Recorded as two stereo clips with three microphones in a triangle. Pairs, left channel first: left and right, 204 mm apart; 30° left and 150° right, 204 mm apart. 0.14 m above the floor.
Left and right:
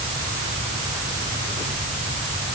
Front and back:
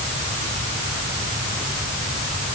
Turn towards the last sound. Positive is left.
No sound to turn to.